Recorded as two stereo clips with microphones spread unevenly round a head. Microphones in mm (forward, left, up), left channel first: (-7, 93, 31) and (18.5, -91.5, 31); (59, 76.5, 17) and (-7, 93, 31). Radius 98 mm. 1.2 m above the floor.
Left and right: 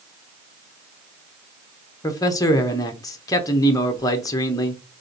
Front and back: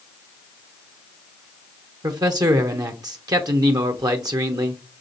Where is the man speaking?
165° left, 0.7 m.